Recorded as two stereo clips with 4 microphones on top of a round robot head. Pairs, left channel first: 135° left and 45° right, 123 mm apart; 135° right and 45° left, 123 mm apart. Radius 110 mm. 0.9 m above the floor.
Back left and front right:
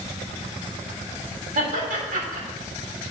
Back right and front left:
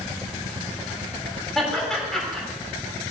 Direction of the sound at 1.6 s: 50° right.